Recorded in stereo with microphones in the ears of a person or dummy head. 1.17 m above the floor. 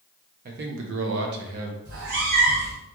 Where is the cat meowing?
55° right (ahead or behind), 1.2 m.